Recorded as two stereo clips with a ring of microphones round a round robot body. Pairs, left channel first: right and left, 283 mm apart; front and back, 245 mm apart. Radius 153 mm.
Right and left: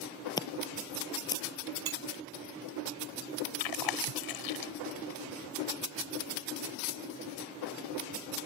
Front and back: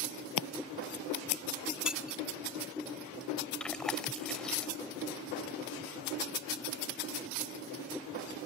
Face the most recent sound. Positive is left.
turn(degrees=-90)